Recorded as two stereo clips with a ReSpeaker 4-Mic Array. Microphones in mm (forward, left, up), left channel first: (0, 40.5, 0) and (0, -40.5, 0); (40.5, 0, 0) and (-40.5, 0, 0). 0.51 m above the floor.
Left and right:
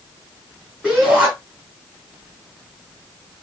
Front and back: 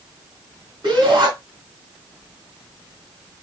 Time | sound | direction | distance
0.8 | a shout | 175° left | 4 m